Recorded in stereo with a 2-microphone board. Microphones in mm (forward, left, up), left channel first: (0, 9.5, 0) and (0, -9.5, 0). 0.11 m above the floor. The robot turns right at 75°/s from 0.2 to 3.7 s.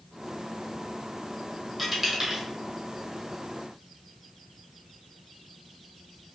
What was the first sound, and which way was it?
A dropped coin, 10° right (ahead or behind).